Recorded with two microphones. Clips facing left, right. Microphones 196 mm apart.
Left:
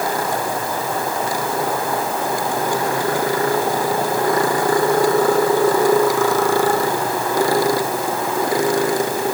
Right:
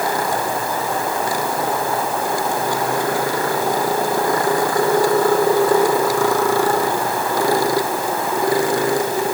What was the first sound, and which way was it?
Only background noise.